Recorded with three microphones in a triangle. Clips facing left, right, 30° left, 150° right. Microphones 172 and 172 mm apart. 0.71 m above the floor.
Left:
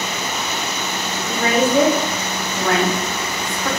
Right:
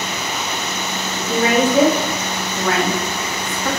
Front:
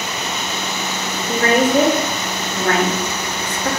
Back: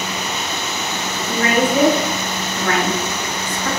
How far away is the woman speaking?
About 0.6 m.